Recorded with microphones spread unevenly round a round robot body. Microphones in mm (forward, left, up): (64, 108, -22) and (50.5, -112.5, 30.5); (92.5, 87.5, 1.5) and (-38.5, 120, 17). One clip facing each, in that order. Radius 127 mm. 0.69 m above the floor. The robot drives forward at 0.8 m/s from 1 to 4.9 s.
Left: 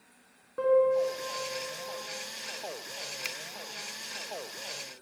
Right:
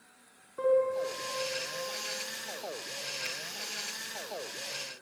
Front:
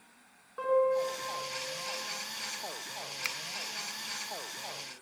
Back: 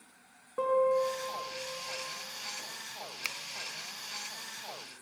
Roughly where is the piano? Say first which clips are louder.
Left 3 dB, even; behind left.